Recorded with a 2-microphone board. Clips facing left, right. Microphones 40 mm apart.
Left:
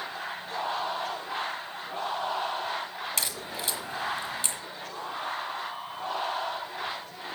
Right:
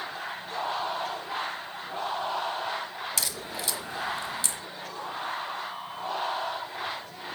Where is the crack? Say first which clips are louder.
Even; 35° left (ahead or behind), 1.4 m.